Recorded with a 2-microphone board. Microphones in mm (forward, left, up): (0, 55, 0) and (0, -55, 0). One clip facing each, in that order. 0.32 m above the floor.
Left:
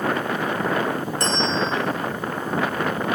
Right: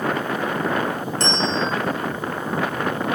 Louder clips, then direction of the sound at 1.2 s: Right 1 dB; 25° right (ahead or behind).